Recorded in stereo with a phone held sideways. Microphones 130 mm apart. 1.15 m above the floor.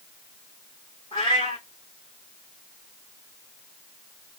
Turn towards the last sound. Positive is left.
turn(degrees=45)  # may be behind; listen again after turning